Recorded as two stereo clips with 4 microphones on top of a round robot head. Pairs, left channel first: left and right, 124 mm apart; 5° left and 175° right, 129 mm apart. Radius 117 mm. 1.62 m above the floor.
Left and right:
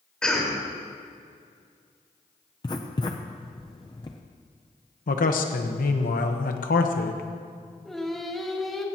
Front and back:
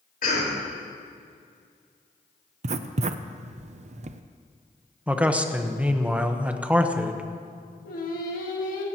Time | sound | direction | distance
0.2 | a cough | 5° left | 4.5 m
2.6 | writing | 155° left | 0.5 m
5.1 | a man speaking | 105° left | 1.1 m
7.8 | singing | straight ahead | 1.7 m